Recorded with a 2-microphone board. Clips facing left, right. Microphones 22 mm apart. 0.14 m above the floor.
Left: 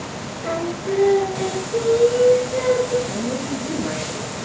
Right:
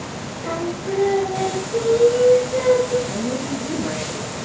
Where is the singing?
45° left (ahead or behind), 7.5 m.